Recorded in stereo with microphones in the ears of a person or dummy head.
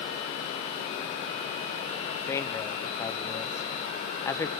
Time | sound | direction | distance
2.3 | a man speaking | 15° left (ahead or behind) | 0.9 m